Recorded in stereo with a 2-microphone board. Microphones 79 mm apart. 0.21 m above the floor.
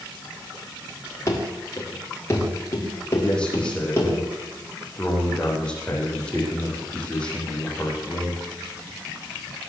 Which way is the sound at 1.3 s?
35° left (ahead or behind).